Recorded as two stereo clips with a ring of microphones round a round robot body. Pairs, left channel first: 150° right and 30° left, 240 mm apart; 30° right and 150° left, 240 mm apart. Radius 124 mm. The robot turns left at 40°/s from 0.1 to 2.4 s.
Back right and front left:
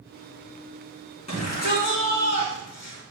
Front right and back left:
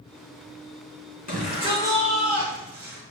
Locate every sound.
1.3 s a shout: 85° right, 5 m; by 3.0 s 130° right, 5 m